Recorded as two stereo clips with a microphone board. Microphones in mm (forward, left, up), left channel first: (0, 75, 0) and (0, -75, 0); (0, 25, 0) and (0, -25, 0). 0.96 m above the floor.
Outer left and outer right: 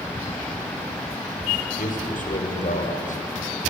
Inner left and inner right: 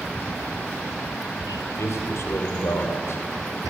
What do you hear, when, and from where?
1.8 s a man speaking: 60° left (ahead or behind), 4.5 m; by 3.7 s 55° left (ahead or behind), 5.5 m